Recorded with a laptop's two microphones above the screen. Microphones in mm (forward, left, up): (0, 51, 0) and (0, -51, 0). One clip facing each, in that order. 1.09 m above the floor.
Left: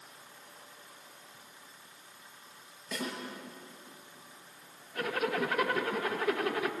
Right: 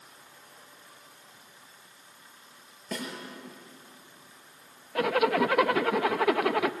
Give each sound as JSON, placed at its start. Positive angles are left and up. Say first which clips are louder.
{"t": 2.9, "sound": "a snare drum", "louder": "right 1 dB", "side_deg": -45, "distance_m": 6.0}
{"t": 5.0, "sound": "a zipper", "louder": "right 8 dB", "side_deg": -80, "distance_m": 0.7}